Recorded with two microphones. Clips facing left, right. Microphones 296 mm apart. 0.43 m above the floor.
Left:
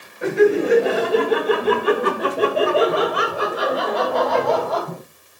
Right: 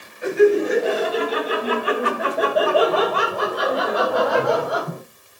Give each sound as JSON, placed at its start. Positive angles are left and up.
{"t": 0.2, "sound": "laughter", "side_deg": 70, "distance_m": 2.0}